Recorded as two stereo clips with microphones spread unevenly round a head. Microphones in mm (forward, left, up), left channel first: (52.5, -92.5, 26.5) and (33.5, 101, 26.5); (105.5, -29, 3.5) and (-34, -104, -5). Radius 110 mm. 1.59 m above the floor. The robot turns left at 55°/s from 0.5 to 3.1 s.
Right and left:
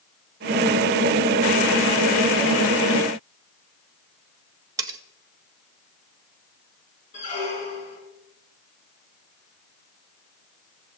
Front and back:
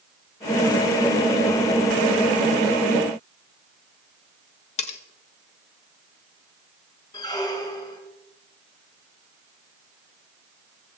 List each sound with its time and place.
4.8 s cutlery clinking: 30° left, 0.8 m
7.1 s a squeak: 35° right, 4 m